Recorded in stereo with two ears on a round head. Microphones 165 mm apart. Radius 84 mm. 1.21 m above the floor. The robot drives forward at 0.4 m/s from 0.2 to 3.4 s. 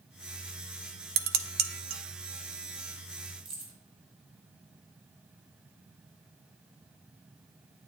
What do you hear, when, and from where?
1.2 s dishes clattering: 55° right (ahead or behind), 0.6 m; by 2.0 s 45° right (ahead or behind), 0.7 m
3.5 s keys jangling: 35° right (ahead or behind), 3 m